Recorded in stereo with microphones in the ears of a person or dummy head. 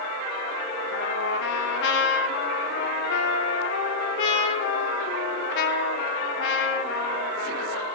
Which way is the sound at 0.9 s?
65° left (ahead or behind).